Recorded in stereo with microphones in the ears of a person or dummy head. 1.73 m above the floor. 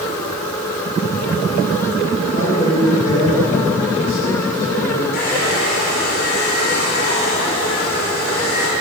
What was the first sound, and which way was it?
A man speaking, 45° left (ahead or behind).